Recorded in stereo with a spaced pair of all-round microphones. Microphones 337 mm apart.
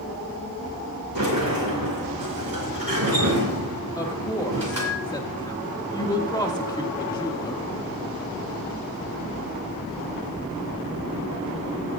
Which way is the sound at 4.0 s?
10° left (ahead or behind).